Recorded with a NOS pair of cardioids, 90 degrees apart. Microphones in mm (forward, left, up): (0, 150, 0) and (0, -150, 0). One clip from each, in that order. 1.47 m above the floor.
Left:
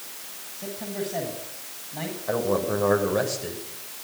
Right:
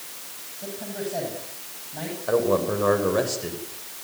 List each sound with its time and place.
0.6 s a man speaking: 10° left, 8.5 m
2.3 s a man speaking: 25° right, 7.5 m